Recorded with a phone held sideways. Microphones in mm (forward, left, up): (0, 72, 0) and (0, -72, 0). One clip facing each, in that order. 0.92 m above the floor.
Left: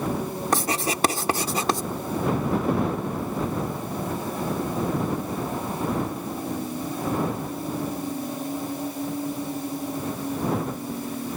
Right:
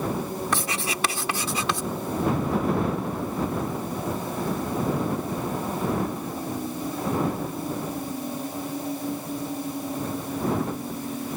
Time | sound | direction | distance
0.5 | writing | 40° left (ahead or behind) | ?